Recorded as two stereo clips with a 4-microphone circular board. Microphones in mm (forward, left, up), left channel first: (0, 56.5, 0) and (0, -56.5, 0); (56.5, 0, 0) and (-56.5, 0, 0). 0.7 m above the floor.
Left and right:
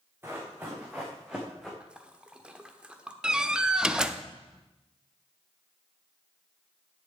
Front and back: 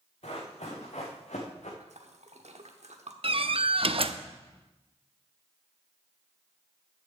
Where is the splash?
170° right, 1.1 m.